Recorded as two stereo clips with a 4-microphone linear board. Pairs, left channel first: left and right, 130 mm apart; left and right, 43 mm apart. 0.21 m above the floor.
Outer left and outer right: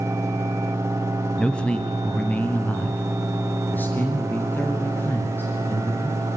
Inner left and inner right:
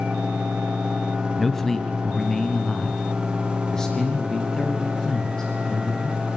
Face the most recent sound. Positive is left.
turn(degrees=15)  # may be behind; listen again after turning